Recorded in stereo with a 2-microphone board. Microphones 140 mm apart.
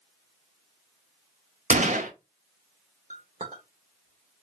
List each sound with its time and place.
1.7 s a gunshot: 70° right (ahead or behind), 0.7 m
3.1 s a clink: 70° right (ahead or behind), 1.1 m